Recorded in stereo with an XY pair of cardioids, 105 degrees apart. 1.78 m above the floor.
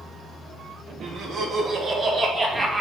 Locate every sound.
1.0 s laughter: 65° right, 2.5 m; by 2.8 s 25° right, 2 m